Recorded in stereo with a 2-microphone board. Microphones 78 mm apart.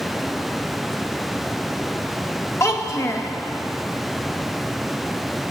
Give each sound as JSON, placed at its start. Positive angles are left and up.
{"t": 2.6, "sound": "a child speaking", "side_deg": 40, "distance_m": 0.7}